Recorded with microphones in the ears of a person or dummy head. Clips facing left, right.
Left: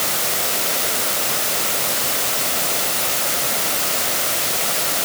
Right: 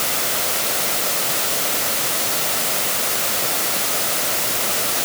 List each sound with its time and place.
Only background noise.